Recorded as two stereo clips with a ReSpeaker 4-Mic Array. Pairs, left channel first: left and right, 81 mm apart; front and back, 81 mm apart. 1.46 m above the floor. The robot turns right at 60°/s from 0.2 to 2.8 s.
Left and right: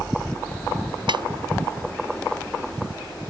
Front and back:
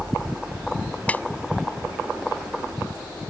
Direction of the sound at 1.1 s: 75° right.